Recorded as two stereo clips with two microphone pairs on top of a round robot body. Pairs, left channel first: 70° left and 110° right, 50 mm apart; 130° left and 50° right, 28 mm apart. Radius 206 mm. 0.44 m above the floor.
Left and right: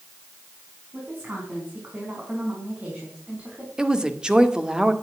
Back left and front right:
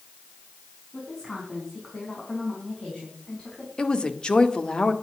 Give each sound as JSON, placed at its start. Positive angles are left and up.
{"t": 0.9, "sound": "a woman speaking", "azimuth_deg": -160, "distance_m": 5.5}
{"t": 3.8, "sound": "a woman speaking", "azimuth_deg": 175, "distance_m": 2.0}